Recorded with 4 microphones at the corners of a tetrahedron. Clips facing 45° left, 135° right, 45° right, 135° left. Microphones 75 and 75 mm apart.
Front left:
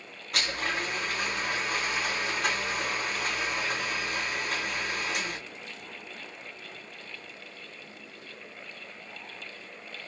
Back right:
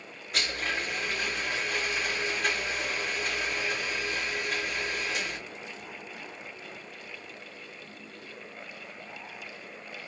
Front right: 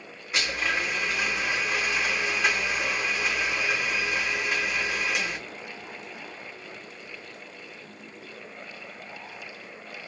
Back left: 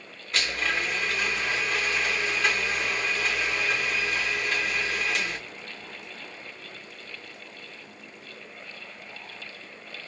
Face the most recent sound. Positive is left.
turn(degrees=40)